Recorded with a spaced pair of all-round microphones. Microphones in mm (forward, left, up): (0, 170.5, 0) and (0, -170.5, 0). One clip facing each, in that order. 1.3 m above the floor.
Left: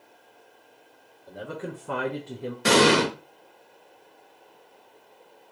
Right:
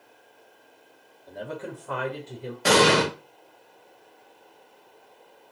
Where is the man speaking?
5° left (ahead or behind), 0.6 m; by 2.5 s 75° left (ahead or behind), 0.6 m.